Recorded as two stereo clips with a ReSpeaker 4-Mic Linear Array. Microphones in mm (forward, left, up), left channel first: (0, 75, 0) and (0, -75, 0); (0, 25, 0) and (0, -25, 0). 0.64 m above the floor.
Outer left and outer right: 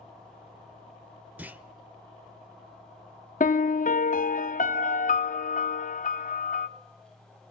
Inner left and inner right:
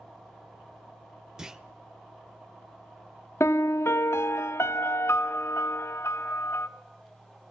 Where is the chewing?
I don't hear chewing.